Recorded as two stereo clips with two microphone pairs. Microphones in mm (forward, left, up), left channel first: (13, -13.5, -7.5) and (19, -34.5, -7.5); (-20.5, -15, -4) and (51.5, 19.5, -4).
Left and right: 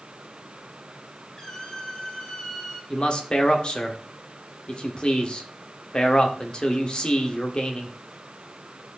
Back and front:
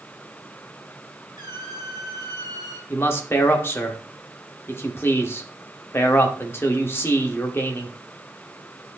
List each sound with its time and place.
1.4 s a squeak: 50° left, 2 m
2.9 s a man speaking: 150° left, 1.6 m